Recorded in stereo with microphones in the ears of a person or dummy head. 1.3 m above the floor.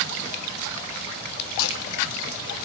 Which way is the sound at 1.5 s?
80° left.